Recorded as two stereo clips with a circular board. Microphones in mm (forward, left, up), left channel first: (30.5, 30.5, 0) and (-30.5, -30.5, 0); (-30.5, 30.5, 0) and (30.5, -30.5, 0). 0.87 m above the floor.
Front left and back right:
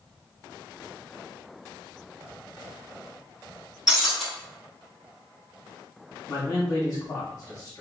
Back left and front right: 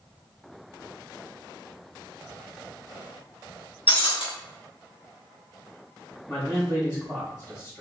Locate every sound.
3.9 s breaking glass: 140° left, 1.0 m
6.3 s a man speaking: 85° left, 1.3 m